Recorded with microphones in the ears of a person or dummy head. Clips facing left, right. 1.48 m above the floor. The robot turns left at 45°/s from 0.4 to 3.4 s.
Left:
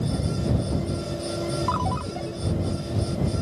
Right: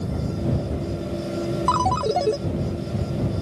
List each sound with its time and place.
1.7 s a ringtone: 65° right; by 2.4 s 95° right